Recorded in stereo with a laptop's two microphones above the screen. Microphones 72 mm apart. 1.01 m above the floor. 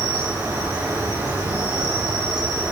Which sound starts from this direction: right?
An insect, at 0.0 s.